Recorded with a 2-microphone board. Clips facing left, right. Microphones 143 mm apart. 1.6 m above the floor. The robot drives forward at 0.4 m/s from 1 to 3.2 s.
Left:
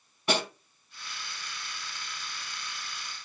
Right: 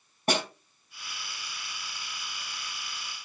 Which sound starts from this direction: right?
A snare drum, at 0.3 s.